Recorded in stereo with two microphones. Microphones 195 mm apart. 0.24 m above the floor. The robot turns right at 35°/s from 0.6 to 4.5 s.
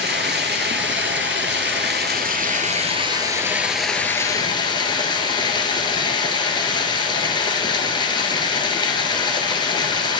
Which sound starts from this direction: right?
Running water, at 0.0 s.